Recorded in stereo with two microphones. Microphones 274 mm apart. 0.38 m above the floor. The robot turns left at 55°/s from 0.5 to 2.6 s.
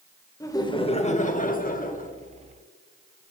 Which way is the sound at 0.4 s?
155° left.